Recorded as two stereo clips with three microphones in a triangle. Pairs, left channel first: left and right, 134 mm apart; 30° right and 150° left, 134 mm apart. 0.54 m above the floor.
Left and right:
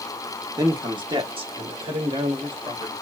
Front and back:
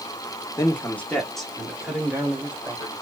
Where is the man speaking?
70° right, 0.9 m; by 2.9 s 135° right, 2 m.